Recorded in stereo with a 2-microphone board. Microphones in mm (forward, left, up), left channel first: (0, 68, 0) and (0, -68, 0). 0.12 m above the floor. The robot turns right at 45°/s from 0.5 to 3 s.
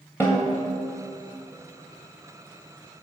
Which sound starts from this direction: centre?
A snare drum, at 0.2 s.